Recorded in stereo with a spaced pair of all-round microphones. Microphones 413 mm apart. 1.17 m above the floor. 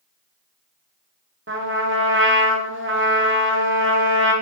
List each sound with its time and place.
1.5 s a trumpet: 30° right (ahead or behind), 0.6 m